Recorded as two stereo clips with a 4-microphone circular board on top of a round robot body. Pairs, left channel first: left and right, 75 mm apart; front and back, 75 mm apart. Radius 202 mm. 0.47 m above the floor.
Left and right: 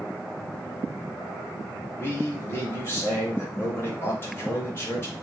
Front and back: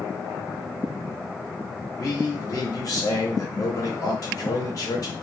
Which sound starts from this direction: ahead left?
A man speaking, at 2.0 s.